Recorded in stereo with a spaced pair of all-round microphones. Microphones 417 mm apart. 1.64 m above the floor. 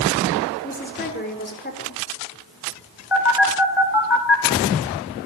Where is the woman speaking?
25° left (ahead or behind), 4.5 m.